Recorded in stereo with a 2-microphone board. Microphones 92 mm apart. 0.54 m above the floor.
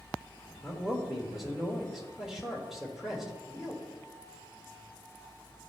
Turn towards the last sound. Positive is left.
turn(degrees=-5)  # may be behind; listen again after turning